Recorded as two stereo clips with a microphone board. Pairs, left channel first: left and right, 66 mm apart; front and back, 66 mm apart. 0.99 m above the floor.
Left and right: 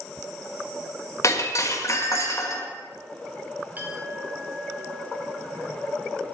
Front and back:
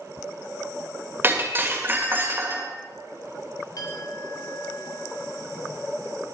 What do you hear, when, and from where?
1.2 s breaking glass: 125° left, 1.9 m
3.8 s a clink: 25° right, 2 m